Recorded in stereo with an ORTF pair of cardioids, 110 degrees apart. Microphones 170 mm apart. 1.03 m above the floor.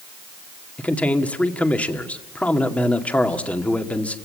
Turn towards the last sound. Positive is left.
turn(degrees=10)